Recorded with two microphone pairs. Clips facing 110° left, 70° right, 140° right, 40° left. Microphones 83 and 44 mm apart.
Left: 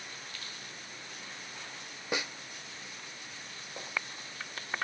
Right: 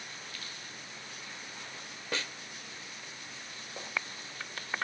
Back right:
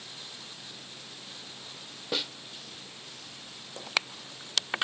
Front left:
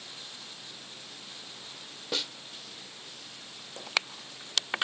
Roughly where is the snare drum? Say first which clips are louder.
Left 2 dB, back right 1 dB; behind left.